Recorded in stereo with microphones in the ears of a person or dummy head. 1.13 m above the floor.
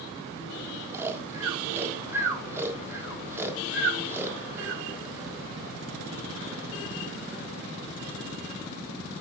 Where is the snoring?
10° right (ahead or behind), 1.3 m.